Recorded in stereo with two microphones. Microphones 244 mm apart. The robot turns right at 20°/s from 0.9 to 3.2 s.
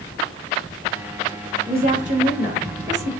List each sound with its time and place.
1.6 s a woman speaking: 40° right (ahead or behind), 3.5 m; by 3.1 s 10° right (ahead or behind), 3.5 m